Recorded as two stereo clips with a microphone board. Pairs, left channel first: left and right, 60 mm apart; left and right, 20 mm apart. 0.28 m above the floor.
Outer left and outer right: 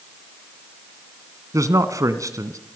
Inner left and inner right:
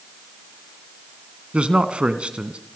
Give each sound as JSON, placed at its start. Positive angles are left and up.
{"t": 1.5, "sound": "a man speaking", "side_deg": -65, "distance_m": 2.0}